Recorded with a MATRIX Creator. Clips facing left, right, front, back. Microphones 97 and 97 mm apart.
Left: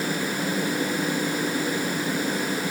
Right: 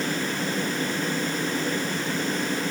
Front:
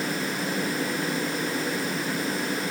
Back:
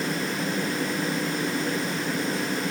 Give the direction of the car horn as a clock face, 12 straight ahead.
No car horn in this recording.